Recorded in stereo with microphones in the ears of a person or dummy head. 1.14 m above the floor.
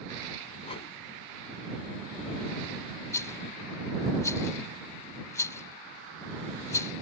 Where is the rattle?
20° left (ahead or behind).